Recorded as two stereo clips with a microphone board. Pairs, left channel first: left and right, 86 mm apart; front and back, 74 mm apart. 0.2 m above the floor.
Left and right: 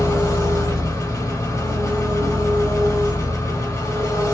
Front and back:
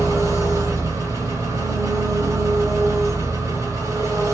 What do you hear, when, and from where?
0.0 s an engine running: 135° left, 1.8 m